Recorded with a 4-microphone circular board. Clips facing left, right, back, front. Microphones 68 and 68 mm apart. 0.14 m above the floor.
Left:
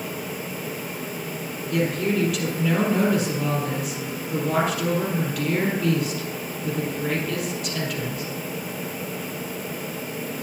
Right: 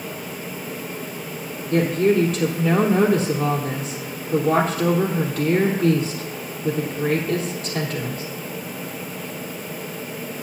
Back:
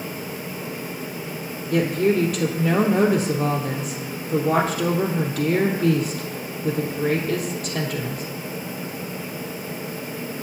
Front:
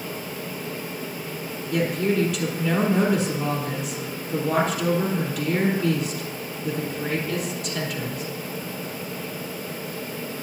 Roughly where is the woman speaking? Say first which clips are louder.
Right 6 dB, back 3 dB; behind right.